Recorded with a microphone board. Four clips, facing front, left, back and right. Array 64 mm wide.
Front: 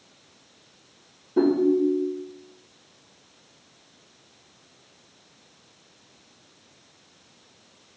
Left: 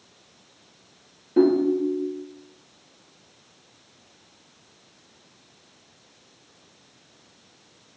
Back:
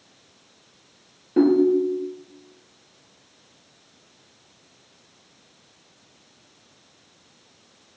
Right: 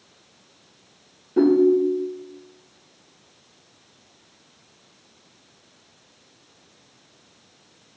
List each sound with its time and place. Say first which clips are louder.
1.4 s a ringtone: right 3 dB, back 3 dB; 165° left, 1.4 m